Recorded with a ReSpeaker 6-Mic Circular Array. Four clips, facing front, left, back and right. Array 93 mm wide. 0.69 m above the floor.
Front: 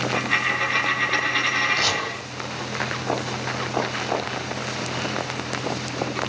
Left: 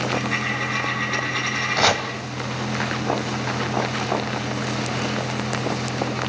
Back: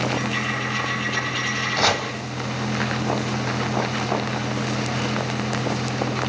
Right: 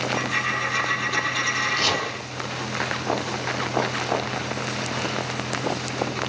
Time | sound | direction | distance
0.1 | a dropped coin | 20° left | 6.5 m
1.8 | chopping | 120° left | 3 m